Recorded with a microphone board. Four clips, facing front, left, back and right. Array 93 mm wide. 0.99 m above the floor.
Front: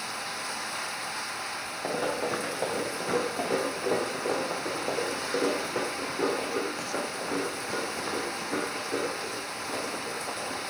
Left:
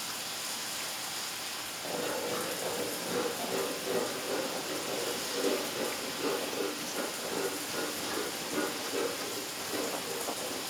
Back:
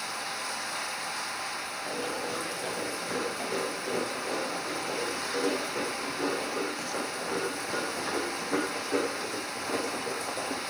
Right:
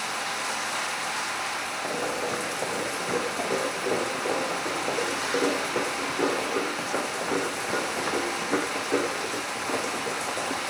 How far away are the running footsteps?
About 4 m.